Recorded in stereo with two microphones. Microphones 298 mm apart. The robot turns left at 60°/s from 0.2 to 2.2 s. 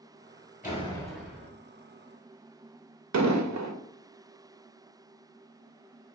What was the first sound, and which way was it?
A door slam, 30° left.